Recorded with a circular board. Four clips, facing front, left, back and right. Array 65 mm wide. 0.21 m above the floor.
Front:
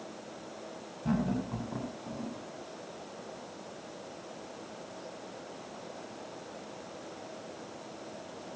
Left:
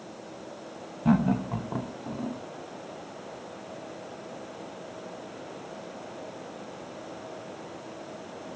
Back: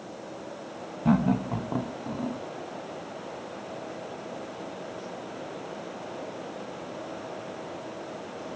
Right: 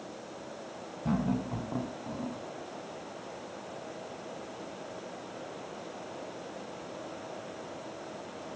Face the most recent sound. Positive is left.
turn(degrees=175)